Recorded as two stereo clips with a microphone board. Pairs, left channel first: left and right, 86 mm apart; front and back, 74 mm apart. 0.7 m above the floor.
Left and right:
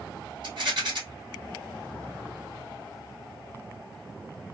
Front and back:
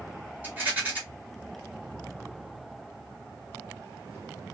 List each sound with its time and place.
0.4 s a rattle: 115° right, 2.0 m